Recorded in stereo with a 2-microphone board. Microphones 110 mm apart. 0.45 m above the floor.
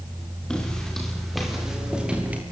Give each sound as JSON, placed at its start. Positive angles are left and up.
{"t": 0.5, "sound": "footsteps", "side_deg": 5, "distance_m": 7.5}